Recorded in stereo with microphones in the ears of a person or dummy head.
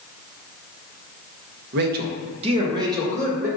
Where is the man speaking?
65° right (ahead or behind), 0.9 m; by 3.5 s 15° right (ahead or behind), 1.6 m.